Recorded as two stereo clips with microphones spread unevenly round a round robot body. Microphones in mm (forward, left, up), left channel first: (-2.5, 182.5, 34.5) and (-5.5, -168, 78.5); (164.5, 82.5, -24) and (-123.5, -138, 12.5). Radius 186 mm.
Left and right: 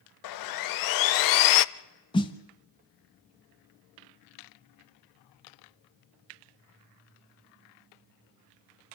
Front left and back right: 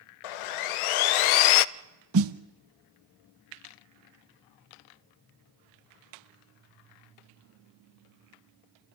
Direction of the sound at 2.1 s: 170° left.